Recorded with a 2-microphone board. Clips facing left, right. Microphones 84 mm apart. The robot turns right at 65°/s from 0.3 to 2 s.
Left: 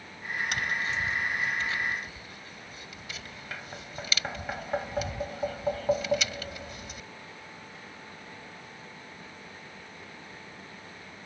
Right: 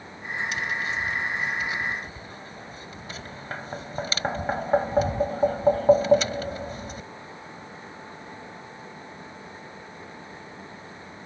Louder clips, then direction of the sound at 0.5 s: Right 2 dB; 60° left (ahead or behind).